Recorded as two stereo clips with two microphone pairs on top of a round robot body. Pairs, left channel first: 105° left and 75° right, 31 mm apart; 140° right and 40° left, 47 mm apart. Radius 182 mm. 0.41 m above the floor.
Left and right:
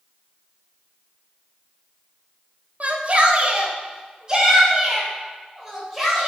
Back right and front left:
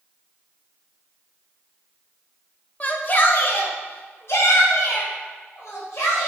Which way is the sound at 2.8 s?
95° right.